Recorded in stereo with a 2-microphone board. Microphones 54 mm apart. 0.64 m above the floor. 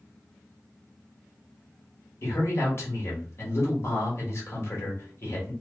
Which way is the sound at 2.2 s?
50° left (ahead or behind).